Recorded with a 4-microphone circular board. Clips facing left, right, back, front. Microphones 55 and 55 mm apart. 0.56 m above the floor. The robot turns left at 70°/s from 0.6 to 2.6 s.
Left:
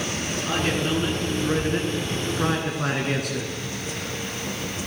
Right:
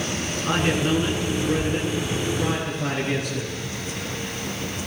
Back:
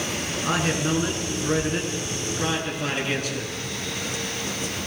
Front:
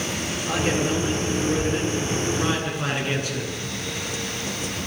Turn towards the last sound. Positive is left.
turn(degrees=65)